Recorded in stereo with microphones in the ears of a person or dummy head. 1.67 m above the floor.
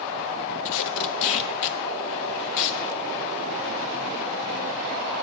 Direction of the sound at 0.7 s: 70° left (ahead or behind).